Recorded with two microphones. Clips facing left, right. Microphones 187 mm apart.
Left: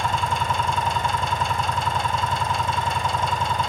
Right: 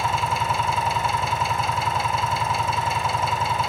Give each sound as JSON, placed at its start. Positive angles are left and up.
{"t": 0.0, "sound": "an engine running", "side_deg": -5, "distance_m": 0.8}